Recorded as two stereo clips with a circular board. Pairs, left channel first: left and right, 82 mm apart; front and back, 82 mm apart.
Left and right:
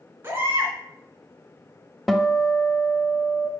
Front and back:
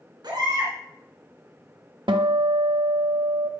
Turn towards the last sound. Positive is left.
turn(degrees=180)